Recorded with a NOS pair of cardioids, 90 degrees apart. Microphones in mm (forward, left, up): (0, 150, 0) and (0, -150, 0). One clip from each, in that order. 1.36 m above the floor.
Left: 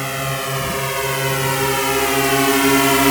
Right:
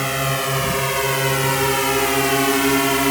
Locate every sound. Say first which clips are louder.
0.0 s a drone: right 2 dB; 15° right; by 3.1 s 30° left